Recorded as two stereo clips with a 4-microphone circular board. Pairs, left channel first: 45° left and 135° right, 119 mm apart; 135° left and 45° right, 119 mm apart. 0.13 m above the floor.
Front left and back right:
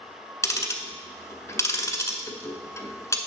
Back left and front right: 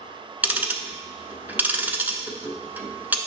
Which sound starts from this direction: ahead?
Ticking, at 0.4 s.